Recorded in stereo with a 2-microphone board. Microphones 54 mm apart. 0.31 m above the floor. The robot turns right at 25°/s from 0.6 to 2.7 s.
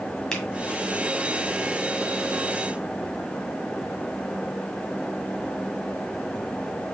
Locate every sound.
0.3 s a finger snap: 15° left (ahead or behind), 1.6 m